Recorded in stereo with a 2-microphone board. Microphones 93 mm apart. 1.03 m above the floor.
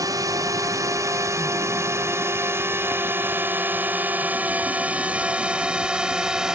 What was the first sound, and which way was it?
A drone, 40° right (ahead or behind).